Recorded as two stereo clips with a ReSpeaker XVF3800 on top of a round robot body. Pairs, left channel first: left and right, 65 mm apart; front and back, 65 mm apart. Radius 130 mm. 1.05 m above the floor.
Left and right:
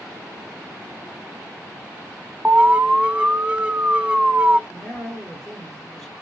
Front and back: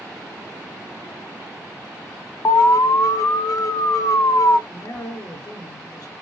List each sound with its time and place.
2.5 s an alarm: 20° right, 0.5 m
4.7 s a man speaking: 5° left, 1.7 m